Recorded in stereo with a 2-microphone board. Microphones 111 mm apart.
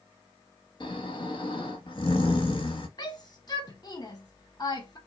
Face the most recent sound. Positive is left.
turn(degrees=35)  # may be behind; listen again after turning